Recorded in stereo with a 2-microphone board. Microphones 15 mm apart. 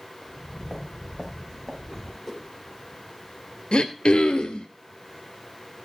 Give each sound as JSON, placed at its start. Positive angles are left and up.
{"t": 0.2, "sound": "footsteps", "side_deg": 30, "distance_m": 7.0}
{"t": 2.2, "sound": "a whoosh", "side_deg": 15, "distance_m": 7.0}
{"t": 3.7, "sound": "throat clearing", "side_deg": 65, "distance_m": 1.6}